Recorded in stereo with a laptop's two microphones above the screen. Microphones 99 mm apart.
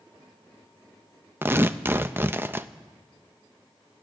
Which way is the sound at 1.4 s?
20° right (ahead or behind).